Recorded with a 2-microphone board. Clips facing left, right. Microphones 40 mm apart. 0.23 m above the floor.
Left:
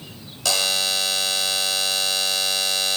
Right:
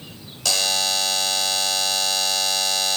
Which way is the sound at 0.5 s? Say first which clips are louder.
Even; centre (ahead or behind).